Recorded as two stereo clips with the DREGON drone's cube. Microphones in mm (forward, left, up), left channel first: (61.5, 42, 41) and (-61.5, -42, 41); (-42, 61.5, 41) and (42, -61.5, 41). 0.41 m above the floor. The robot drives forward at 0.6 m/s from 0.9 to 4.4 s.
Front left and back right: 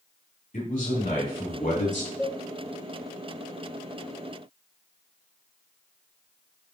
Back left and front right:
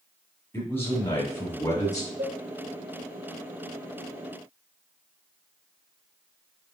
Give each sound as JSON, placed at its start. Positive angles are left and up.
{"t": 0.5, "sound": "a man speaking", "azimuth_deg": 50, "distance_m": 3.5}
{"t": 2.2, "sound": "a cowbell", "azimuth_deg": -50, "distance_m": 1.4}